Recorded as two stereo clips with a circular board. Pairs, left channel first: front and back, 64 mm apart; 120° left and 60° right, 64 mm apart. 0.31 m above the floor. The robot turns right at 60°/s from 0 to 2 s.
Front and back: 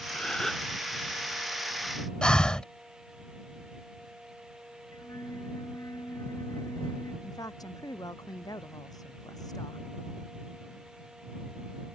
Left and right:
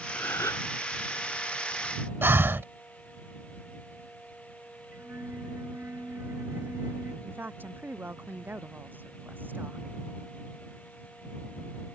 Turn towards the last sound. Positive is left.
turn(degrees=0)